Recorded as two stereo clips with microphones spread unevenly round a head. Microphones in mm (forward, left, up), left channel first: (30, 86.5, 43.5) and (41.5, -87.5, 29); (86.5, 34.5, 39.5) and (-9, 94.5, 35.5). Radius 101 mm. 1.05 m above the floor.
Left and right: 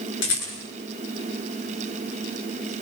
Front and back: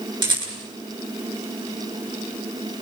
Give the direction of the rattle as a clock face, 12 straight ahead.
9 o'clock.